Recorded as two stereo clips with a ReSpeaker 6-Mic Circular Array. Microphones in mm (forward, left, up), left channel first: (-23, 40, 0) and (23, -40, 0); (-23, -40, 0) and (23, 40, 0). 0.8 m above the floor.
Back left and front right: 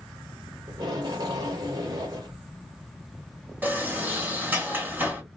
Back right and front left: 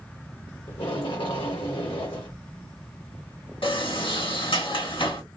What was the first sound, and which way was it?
Tape being pulled, 100° right.